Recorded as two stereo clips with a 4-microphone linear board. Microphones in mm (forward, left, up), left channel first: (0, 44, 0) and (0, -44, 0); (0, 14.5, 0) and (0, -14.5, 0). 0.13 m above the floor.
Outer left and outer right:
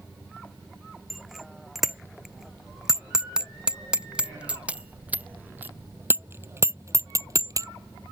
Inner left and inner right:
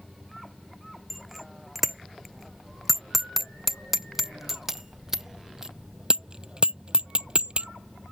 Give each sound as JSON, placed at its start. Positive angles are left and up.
{"t": 1.1, "sound": "a bicycle bell", "side_deg": 0}